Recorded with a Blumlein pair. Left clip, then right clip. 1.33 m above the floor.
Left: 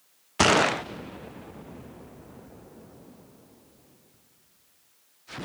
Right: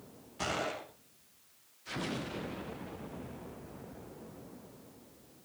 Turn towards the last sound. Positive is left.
turn(degrees=50)